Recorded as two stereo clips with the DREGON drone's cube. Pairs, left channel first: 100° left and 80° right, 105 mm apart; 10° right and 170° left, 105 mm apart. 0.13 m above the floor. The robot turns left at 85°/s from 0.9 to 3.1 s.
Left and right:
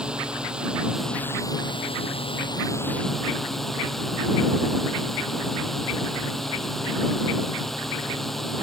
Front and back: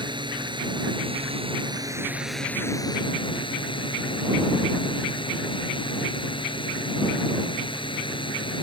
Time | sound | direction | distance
0.0 | a drone | 160° right | ?